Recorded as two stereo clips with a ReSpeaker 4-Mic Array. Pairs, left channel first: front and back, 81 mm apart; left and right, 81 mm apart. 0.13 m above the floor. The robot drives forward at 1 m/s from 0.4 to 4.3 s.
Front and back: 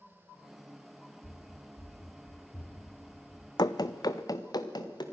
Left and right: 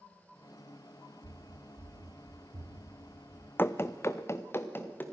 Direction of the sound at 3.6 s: 25° left.